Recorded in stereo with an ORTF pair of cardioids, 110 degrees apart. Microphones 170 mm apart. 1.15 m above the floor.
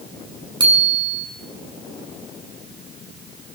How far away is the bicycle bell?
About 7.5 m.